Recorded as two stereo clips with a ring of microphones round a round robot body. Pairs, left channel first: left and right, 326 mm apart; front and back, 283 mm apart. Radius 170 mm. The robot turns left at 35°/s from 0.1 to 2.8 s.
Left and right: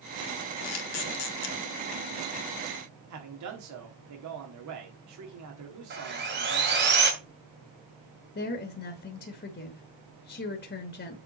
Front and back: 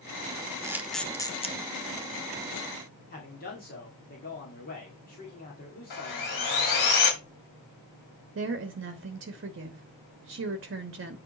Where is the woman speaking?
145° left, 1.0 m.